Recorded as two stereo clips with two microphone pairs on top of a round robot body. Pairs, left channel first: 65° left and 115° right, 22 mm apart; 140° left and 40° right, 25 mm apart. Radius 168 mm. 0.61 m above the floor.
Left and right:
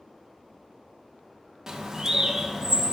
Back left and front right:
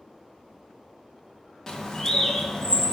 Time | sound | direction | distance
1.7 | a bird | 170° right | 1.4 m